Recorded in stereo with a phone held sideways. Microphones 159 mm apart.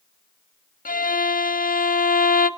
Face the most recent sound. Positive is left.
turn(degrees=70)  # may be behind; listen again after turning